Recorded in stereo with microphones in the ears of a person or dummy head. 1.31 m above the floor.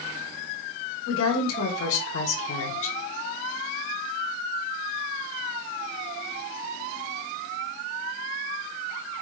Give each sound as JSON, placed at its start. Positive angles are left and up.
{"t": 1.1, "sound": "a woman speaking", "side_deg": 75, "distance_m": 1.9}